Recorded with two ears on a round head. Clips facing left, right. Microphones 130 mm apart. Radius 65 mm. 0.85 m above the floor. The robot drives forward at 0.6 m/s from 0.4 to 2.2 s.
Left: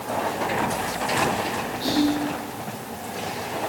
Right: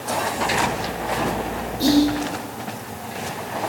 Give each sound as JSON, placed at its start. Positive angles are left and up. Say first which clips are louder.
{"t": 1.8, "sound": "whispering", "louder": "right 6 dB", "side_deg": -55, "distance_m": 2.0}